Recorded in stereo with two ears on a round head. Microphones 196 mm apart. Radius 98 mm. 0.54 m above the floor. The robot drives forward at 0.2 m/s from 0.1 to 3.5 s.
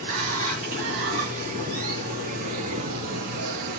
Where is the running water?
35° right (ahead or behind), 3.5 m; by 3.8 s 45° right (ahead or behind), 3 m.